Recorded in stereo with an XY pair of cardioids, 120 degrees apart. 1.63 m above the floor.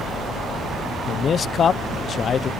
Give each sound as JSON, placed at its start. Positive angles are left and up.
{"t": 1.1, "sound": "a man speaking", "azimuth_deg": 40}